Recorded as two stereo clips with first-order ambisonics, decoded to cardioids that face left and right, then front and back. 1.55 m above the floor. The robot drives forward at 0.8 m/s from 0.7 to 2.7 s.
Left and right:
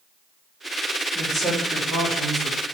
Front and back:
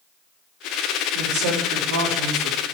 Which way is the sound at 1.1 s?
Straight behind.